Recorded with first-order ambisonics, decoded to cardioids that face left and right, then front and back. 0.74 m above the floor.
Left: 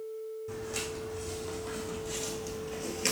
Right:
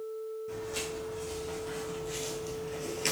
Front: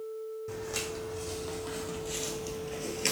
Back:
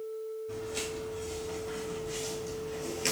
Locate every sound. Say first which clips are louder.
0.5 s footsteps: left 1 dB, front 2 dB; 15° left, 1.8 m; by 3.1 s 25° left, 0.7 m